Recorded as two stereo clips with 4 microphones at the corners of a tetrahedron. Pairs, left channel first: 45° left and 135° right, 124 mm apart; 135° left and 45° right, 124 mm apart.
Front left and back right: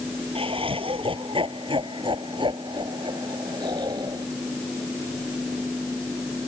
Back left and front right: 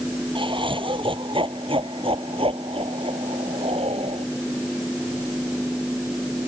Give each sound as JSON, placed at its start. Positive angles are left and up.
{"t": 0.3, "sound": "laughter", "azimuth_deg": -95}